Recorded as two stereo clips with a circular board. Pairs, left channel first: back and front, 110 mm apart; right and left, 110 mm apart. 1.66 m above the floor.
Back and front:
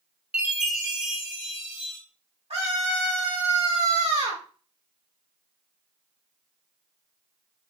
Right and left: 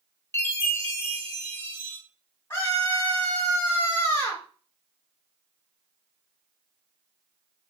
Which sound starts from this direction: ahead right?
A scream, at 2.5 s.